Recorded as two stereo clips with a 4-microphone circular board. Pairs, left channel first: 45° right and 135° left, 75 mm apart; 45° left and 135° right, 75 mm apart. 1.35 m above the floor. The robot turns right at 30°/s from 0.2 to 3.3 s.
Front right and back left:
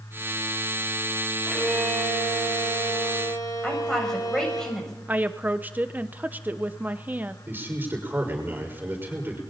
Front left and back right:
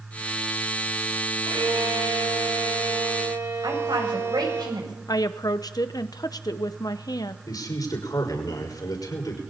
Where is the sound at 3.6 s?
125° right, 7.5 m.